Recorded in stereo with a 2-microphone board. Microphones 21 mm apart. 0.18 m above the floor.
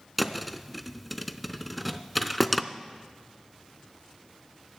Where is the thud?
5° right (ahead or behind), 0.6 m.